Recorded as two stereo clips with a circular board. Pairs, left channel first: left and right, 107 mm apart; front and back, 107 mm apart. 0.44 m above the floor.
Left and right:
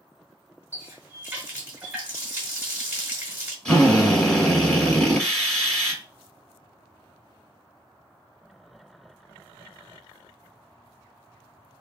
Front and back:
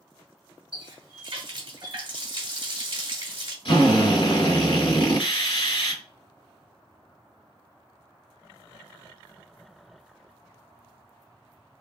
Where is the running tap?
160° right, 1.0 m.